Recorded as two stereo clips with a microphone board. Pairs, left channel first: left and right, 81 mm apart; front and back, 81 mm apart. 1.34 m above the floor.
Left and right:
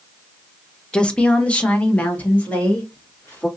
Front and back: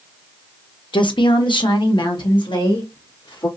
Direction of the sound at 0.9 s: 10° left.